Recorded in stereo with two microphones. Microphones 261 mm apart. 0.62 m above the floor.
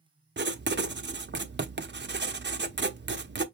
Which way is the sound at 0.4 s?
40° right (ahead or behind).